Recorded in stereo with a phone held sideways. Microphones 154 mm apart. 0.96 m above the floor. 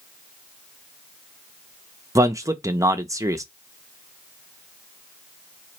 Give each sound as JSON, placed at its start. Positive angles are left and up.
{"t": 2.1, "sound": "a man speaking", "side_deg": -20, "distance_m": 0.6}